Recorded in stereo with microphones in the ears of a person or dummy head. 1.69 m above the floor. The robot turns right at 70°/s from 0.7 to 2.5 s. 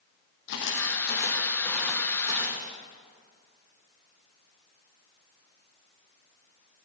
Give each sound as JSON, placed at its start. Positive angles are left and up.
{"t": 0.5, "sound": "footsteps", "side_deg": 65, "distance_m": 4.0}